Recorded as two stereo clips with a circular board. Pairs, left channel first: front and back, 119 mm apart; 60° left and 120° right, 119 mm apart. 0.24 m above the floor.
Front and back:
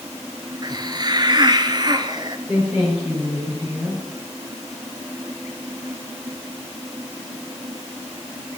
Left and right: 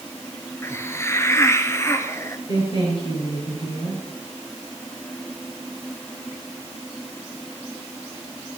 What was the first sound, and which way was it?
A hiss, 130° left.